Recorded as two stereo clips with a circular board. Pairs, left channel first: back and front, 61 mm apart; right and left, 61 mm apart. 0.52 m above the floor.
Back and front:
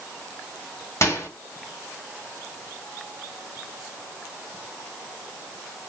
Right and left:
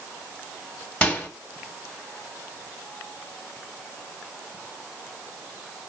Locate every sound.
1.0 s a microwave: 160° right, 1.3 m